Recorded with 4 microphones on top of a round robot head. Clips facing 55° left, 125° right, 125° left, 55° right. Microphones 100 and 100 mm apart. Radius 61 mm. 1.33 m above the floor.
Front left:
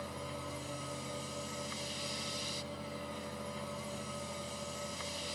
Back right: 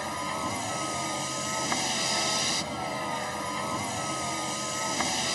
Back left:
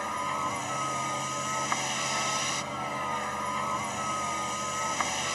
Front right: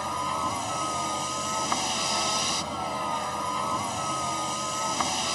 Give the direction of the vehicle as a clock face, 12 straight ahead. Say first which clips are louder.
Back right 11 dB, front right 2 dB; 4 o'clock.